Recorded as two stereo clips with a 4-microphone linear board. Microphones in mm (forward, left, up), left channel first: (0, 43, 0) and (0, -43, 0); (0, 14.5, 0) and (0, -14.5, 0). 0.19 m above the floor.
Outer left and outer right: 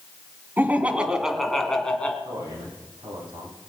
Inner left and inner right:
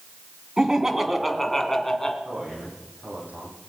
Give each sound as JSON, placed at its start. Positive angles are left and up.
{"t": 0.6, "sound": "laughter", "side_deg": -25, "distance_m": 1.6}
{"t": 2.2, "sound": "a man speaking", "side_deg": -75, "distance_m": 8.5}